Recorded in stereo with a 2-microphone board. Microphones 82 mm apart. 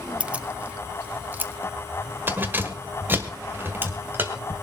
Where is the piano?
No piano in this recording.